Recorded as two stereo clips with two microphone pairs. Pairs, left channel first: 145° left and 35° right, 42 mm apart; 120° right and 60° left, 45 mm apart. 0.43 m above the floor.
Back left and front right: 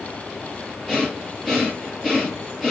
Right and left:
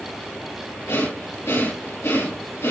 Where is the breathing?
125° right, 5.5 m.